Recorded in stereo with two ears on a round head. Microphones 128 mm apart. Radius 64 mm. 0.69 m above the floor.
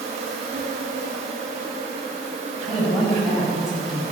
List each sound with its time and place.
0.0 s an insect: 45° right (ahead or behind), 1.6 m
2.7 s a woman speaking: centre (ahead or behind), 4.5 m